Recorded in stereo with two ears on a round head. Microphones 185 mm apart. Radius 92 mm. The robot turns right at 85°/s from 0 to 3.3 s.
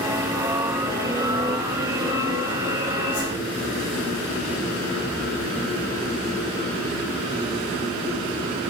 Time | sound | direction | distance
3.1 | a whoosh | 85° left | 6 m